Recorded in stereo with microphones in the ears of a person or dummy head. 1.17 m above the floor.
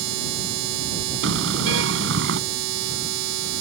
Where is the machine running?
70° right (ahead or behind).